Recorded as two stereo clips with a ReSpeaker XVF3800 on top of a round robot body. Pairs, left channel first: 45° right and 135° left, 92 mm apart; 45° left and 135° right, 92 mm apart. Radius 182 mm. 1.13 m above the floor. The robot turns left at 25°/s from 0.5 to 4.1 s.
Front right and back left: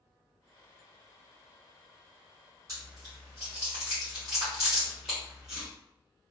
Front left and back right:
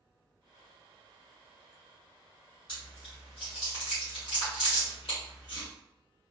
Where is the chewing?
85° left, 0.7 m; by 5.7 s 50° left, 0.7 m.